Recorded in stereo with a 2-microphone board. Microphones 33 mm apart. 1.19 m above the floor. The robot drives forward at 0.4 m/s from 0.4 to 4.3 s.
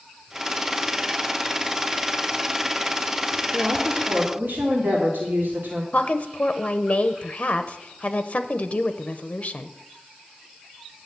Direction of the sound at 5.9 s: 40° left (ahead or behind).